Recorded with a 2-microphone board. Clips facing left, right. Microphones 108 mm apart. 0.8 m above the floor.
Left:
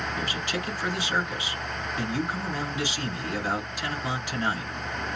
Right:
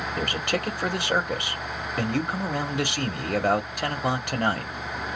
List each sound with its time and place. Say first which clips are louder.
0.2 s a man speaking: right 4 dB; 55° right (ahead or behind), 1.4 m